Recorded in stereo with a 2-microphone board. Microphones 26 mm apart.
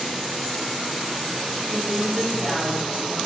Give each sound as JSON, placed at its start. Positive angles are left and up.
{"t": 1.6, "sound": "a woman speaking", "side_deg": -30, "distance_m": 2.0}